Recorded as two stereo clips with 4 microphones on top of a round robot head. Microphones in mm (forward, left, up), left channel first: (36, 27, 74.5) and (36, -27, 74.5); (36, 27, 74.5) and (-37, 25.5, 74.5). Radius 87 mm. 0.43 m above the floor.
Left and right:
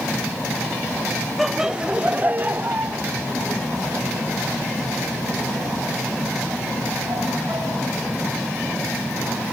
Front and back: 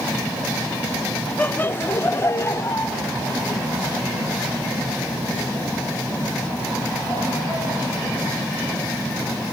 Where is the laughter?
5° right, 0.7 m; by 8.3 s 55° right, 4.5 m.